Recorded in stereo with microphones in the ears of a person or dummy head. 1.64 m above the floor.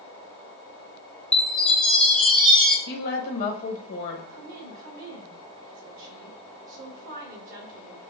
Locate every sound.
1.3 s a chime: 5° left (ahead or behind), 0.9 m
2.9 s a woman speaking: 50° left (ahead or behind), 1.0 m
4.3 s a woman speaking: 55° right (ahead or behind), 1.6 m